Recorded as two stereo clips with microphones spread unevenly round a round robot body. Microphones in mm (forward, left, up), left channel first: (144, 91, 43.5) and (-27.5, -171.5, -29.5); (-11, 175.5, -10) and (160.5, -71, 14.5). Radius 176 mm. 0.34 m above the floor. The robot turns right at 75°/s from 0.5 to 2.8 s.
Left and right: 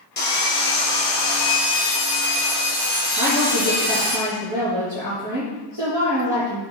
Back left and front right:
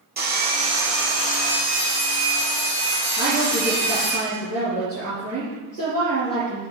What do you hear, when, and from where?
0.2 s sawing: straight ahead, 4 m; by 4.2 s 175° left, 4 m
3.2 s a woman speaking: 160° right, 4.5 m